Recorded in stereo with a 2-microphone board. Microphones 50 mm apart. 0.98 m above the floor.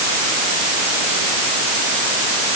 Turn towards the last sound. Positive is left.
No sound to turn to.